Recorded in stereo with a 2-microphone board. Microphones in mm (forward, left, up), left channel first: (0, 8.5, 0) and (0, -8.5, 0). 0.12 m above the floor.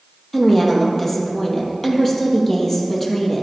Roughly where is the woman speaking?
Left.